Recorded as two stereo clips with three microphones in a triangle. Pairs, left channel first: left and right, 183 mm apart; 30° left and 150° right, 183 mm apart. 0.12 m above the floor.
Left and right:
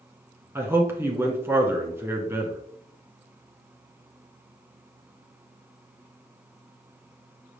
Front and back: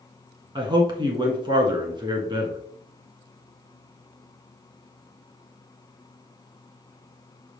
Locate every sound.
0.6 s a man speaking: 150° right, 1.2 m